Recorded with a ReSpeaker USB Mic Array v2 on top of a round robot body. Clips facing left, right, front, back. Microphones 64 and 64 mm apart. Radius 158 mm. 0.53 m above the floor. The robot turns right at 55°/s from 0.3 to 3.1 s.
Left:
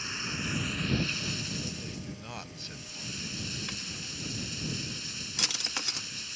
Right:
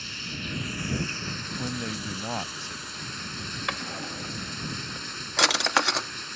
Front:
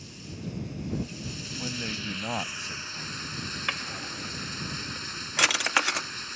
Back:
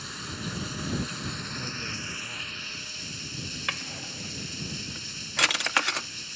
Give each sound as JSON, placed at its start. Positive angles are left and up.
{"t": 0.0, "sound": "running water", "azimuth_deg": 160}
{"t": 1.6, "sound": "a man speaking", "azimuth_deg": -80}
{"t": 3.7, "sound": "a drawer", "azimuth_deg": -85}